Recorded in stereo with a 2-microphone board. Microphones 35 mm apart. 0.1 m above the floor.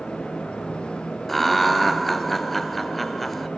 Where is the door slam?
No door slam in this recording.